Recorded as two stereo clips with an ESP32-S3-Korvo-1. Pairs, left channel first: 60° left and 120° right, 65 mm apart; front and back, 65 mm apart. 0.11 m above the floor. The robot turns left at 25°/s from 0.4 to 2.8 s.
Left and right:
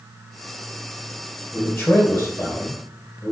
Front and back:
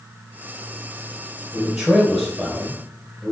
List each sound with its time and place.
1.5 s a man speaking: 130° left, 2.5 m; by 3.3 s 100° left, 2.5 m